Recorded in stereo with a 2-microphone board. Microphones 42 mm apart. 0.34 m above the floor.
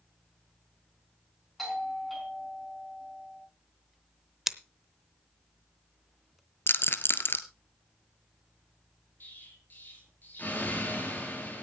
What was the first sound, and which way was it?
A doorbell, centre (ahead or behind).